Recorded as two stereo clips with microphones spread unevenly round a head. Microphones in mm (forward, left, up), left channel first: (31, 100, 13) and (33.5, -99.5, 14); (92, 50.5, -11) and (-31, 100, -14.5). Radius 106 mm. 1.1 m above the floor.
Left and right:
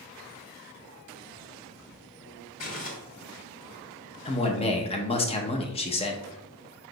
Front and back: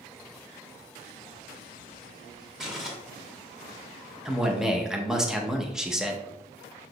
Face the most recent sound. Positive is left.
turn(degrees=75)